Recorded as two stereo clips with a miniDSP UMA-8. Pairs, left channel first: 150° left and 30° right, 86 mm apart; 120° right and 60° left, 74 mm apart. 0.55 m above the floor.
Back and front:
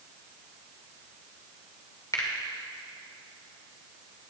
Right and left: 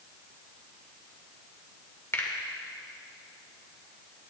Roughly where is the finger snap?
Behind.